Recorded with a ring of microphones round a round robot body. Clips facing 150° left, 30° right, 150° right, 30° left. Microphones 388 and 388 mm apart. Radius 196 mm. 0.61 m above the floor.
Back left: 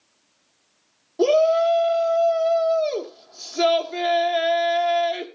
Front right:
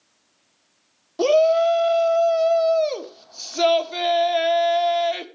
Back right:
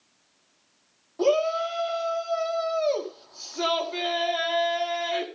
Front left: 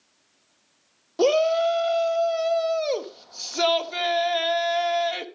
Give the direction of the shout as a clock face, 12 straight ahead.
11 o'clock.